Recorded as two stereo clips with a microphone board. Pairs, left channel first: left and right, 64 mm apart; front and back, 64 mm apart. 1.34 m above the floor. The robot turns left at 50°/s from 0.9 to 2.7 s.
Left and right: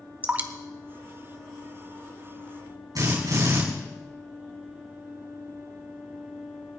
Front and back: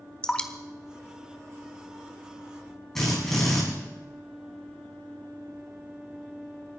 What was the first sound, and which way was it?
Dripping, 60° right.